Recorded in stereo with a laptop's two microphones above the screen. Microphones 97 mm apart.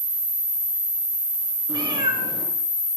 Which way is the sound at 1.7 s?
50° right (ahead or behind).